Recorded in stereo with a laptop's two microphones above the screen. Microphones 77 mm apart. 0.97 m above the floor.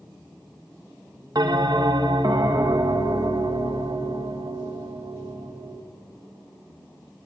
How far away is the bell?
About 1.1 m.